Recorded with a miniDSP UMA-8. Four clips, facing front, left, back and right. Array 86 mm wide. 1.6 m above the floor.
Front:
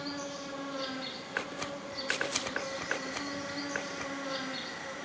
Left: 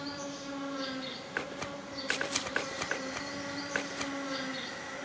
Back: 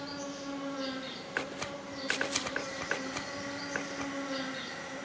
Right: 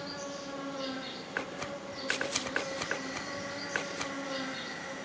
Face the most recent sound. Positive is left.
turn(degrees=10)